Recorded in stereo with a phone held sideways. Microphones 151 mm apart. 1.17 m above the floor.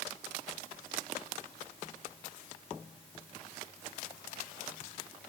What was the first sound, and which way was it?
Only background noise.